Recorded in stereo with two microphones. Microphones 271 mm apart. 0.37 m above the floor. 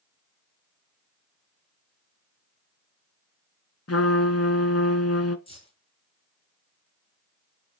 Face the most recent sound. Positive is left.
turn(degrees=20)  # may be behind; listen again after turning